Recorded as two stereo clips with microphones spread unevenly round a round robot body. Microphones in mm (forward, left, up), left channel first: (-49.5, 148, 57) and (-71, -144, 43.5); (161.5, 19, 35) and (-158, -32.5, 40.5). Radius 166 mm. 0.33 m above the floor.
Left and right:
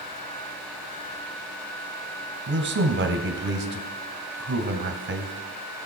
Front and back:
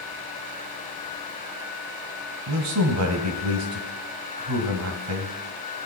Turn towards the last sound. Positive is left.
turn(degrees=-140)